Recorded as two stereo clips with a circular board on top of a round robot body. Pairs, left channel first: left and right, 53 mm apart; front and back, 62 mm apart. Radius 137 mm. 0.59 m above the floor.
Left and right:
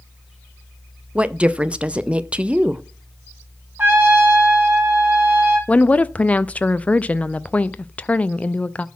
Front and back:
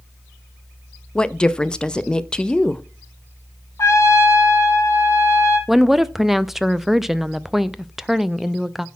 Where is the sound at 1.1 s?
60° right, 0.6 m.